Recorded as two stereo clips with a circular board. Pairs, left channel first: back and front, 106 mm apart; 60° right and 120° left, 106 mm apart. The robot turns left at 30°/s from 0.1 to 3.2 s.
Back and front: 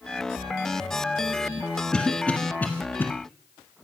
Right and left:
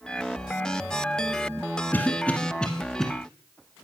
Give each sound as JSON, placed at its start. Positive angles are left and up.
{"t": 1.9, "sound": "a cough", "azimuth_deg": -110, "distance_m": 1.3}